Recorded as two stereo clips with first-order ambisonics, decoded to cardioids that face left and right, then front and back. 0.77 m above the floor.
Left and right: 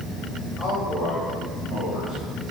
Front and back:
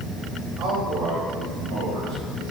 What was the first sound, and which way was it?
A man speaking, 145° left.